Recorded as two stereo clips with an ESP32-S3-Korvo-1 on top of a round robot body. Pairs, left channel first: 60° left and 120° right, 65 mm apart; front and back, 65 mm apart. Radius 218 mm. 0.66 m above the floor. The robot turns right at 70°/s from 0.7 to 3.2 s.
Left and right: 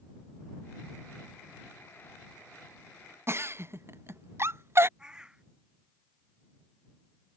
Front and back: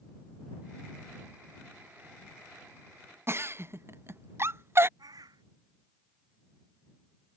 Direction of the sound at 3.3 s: 150° right.